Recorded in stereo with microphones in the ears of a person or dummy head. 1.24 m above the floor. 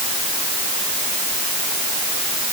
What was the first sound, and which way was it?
Only background noise.